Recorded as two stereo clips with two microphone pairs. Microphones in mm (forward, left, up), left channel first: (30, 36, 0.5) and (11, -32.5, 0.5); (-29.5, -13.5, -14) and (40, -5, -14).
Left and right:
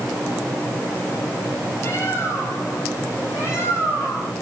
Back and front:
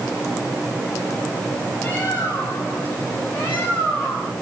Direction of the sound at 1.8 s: 125° left.